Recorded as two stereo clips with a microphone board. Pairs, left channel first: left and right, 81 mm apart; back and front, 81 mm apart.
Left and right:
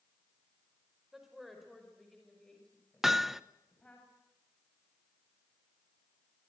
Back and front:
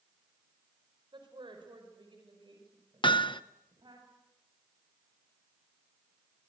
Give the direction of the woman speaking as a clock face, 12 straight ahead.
12 o'clock.